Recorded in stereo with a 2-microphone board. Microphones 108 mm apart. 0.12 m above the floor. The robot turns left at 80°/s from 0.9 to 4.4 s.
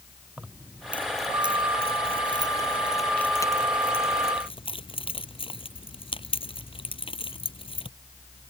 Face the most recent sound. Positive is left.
turn(degrees=60)  # may be behind; listen again after turning